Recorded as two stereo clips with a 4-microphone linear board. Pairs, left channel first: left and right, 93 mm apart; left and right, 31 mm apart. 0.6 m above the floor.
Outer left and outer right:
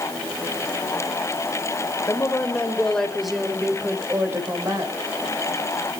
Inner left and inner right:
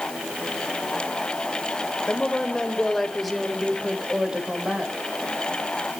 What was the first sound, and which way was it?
A woman speaking, 25° left (ahead or behind).